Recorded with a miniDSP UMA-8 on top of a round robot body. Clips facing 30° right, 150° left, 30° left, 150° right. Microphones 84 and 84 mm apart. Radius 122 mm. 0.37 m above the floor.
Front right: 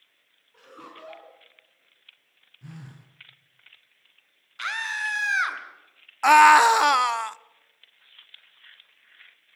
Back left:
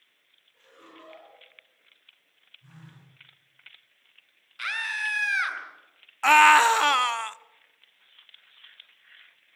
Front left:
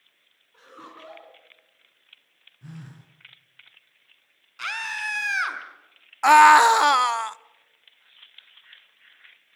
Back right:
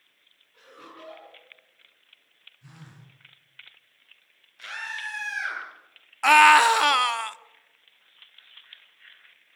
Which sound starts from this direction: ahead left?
A scream, at 4.6 s.